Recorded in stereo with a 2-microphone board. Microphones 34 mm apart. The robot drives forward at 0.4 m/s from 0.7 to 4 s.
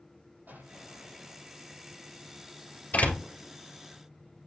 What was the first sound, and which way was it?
An explosion, 70° right (ahead or behind).